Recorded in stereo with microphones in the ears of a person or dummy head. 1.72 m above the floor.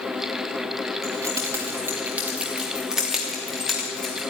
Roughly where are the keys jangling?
Centre.